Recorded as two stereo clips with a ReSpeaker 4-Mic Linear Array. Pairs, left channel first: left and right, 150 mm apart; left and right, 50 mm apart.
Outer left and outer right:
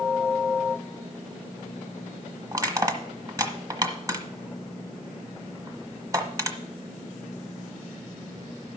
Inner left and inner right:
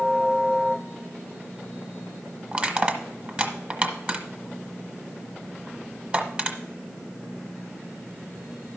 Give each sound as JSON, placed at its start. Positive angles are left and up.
{"t": 2.5, "sound": "crushing", "side_deg": -25, "distance_m": 1.3}